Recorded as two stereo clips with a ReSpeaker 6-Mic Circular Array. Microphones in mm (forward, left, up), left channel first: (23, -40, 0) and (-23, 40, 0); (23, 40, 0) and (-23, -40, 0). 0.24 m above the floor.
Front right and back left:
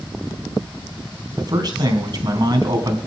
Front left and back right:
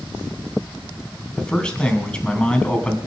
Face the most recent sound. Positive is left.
turn(degrees=135)